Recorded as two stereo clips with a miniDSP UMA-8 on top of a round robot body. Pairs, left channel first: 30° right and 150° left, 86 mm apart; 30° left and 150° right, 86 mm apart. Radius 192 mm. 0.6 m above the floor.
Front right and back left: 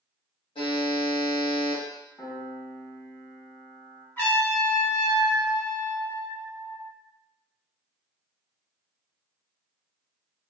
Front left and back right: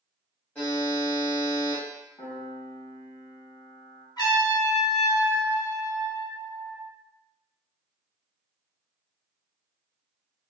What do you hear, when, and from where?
0.6 s a buzzer: 45° right, 0.8 m
2.2 s a piano: 35° left, 1.1 m
4.2 s a trumpet: 30° left, 1.7 m